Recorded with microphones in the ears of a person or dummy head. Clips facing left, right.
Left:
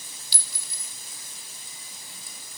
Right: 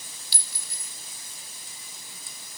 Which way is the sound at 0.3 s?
75° left (ahead or behind).